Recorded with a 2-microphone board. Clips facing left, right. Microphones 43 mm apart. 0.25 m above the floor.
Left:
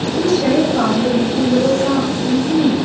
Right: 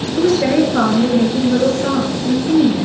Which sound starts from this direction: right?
A woman speaking, at 0.2 s.